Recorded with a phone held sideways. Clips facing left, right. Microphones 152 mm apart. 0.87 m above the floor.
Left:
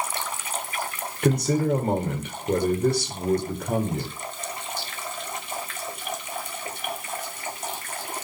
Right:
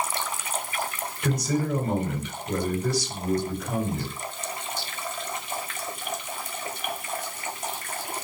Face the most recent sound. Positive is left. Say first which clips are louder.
# left 5 dB
turn(degrees=60)  # may be behind; listen again after turning